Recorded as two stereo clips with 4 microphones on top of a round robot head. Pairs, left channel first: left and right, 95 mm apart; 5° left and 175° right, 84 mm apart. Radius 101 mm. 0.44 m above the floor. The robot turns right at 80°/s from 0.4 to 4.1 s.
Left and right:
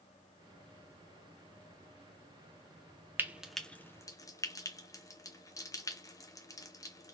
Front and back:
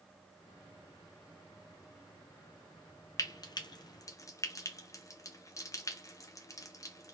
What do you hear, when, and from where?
3.2 s frying: 25° right, 0.9 m; by 7.1 s 45° left, 0.9 m